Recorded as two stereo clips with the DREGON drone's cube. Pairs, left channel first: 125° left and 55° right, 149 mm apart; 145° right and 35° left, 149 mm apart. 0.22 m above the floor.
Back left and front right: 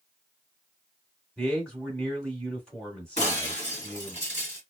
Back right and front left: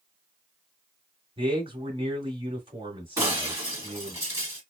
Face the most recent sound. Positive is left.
turn(degrees=100)